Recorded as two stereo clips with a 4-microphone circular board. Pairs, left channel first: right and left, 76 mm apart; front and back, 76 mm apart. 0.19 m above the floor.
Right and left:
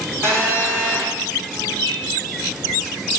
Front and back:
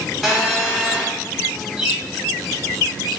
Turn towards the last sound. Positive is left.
turn(degrees=100)